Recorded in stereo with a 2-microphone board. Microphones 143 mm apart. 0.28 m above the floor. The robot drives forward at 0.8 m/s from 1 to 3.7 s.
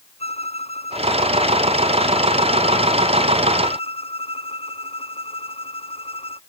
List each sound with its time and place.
0.2 s a violin: 45° left (ahead or behind); by 6.4 s 40° left (ahead or behind)